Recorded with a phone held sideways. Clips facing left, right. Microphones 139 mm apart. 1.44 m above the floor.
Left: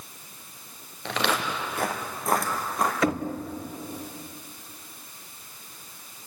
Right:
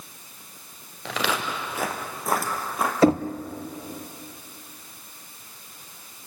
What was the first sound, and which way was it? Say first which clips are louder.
Footsteps: even; centre (ahead or behind).